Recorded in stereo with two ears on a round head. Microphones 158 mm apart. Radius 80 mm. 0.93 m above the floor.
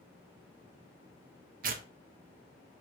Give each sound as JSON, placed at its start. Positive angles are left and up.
{"t": 1.6, "sound": "tearing paper", "side_deg": -50, "distance_m": 0.9}